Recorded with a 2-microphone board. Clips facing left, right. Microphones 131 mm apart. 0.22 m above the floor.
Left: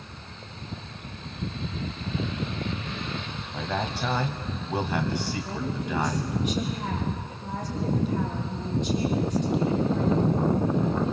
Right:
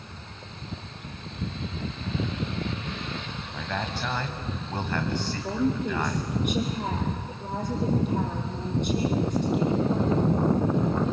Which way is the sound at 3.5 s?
10° left (ahead or behind).